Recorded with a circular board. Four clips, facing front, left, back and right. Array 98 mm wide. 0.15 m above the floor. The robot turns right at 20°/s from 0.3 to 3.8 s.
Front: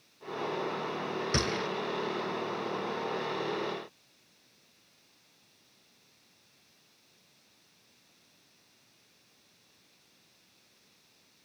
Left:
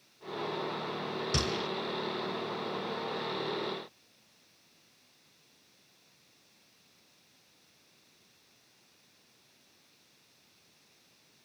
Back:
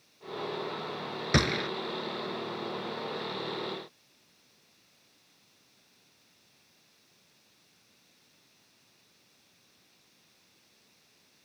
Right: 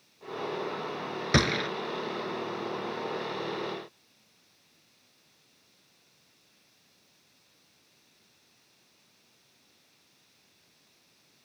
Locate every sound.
1.3 s a gunshot: 115° right, 0.7 m; by 1.7 s 110° right, 0.7 m